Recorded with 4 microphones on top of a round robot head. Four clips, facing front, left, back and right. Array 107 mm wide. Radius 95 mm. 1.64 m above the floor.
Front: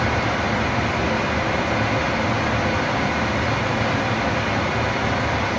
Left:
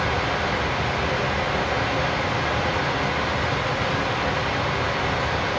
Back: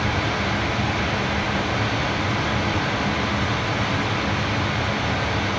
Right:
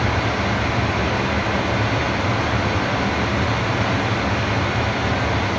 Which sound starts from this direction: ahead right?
Running water, at 0.0 s.